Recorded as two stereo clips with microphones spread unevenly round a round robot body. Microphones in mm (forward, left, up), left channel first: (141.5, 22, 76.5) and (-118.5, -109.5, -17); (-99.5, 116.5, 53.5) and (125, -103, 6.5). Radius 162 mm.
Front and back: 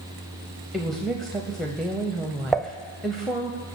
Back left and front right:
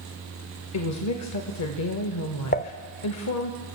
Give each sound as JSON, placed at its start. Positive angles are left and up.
{"t": 0.7, "sound": "a woman speaking", "azimuth_deg": 135, "distance_m": 1.1}
{"t": 2.5, "sound": "dishes clattering", "azimuth_deg": 170, "distance_m": 0.6}